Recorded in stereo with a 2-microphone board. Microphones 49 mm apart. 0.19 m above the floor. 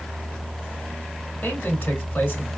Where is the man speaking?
45° left (ahead or behind), 2.5 m.